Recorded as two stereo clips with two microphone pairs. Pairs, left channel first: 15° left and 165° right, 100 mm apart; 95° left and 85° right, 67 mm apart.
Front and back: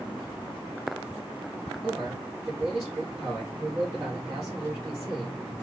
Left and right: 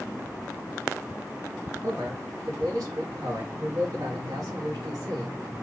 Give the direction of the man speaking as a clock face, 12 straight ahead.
3 o'clock.